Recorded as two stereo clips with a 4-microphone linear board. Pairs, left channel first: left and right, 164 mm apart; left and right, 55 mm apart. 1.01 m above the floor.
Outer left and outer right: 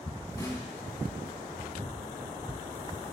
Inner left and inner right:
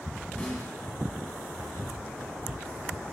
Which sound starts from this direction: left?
A snare drum, at 0.4 s.